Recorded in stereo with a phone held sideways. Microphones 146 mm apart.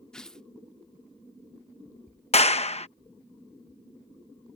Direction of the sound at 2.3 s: 45° left (ahead or behind).